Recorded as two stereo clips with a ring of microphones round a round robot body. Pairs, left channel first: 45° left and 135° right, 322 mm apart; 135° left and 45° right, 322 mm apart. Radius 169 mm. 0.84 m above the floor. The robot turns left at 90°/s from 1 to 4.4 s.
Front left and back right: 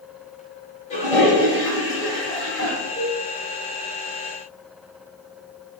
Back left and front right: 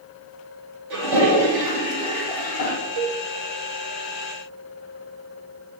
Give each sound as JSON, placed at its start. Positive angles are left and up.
{"t": 0.9, "sound": "a toilet flushing", "azimuth_deg": -25, "distance_m": 2.0}
{"t": 3.0, "sound": "a cowbell", "azimuth_deg": -30, "distance_m": 0.5}